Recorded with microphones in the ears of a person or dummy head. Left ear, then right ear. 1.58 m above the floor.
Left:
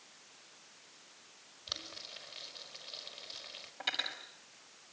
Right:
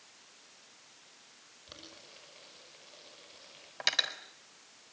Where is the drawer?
I don't hear a drawer.